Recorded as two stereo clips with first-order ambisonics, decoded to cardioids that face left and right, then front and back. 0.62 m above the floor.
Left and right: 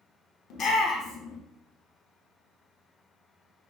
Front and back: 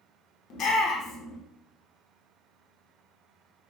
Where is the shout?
40° left, 1.2 m.